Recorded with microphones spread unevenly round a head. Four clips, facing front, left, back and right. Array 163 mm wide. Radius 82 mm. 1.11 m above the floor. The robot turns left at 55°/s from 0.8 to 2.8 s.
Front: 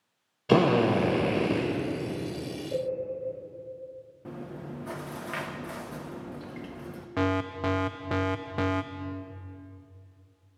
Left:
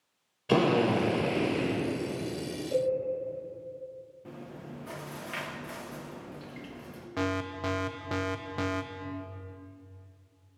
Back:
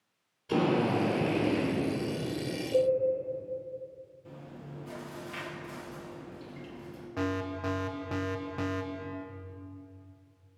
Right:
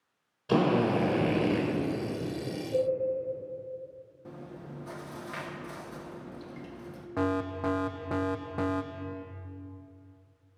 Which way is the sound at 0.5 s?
15° left.